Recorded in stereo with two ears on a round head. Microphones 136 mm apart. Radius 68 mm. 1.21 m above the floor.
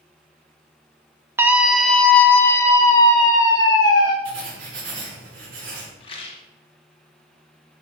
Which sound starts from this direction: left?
A rattle, at 6.0 s.